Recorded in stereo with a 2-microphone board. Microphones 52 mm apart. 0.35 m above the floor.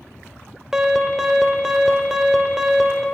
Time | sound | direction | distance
0.7 | an alarm | 15° right (ahead or behind) | 0.7 m